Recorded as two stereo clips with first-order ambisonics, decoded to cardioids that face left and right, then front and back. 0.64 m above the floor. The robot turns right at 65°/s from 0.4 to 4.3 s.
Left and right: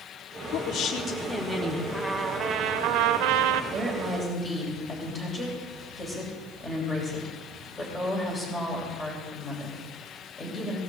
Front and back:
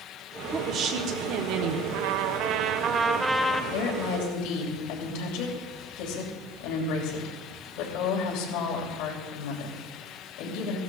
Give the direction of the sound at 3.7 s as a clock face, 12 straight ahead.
1 o'clock.